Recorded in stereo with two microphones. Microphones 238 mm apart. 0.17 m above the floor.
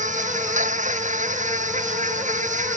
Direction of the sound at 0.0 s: 30° right (ahead or behind).